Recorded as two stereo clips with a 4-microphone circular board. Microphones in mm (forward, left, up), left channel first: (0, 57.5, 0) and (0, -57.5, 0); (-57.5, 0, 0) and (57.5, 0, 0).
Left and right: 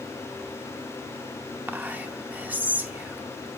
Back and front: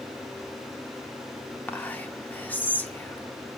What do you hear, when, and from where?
1.7 s whispering: 140° right, 0.7 m